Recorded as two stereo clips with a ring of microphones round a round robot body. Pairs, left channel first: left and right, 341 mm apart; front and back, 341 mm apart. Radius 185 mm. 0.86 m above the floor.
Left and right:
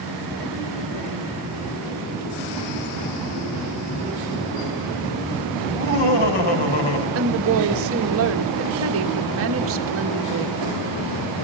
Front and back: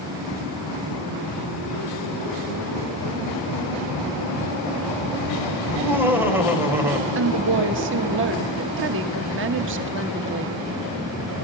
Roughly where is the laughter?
Left.